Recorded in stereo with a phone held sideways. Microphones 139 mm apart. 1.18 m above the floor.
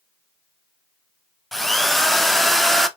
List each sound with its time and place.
1.5 s a drill: centre (ahead or behind), 0.5 m